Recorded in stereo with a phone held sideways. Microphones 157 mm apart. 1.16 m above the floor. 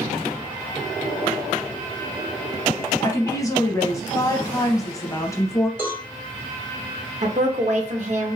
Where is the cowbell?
15° right (ahead or behind), 2.5 m.